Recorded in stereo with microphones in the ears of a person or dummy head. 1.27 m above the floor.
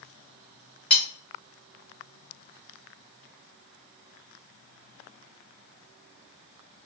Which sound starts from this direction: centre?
Cutlery clinking, at 0.9 s.